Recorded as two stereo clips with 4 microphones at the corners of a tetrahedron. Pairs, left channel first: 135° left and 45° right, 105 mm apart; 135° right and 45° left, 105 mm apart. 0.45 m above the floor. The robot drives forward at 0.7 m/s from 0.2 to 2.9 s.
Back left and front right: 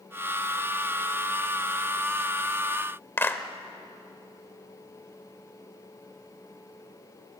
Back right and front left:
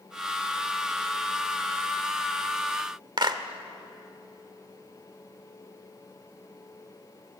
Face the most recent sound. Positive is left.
turn(degrees=75)